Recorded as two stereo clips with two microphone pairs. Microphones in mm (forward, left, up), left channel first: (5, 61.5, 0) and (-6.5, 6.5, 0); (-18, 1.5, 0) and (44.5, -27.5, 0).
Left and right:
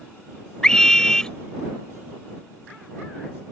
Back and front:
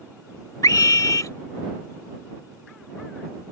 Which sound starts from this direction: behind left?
A scream, at 0.6 s.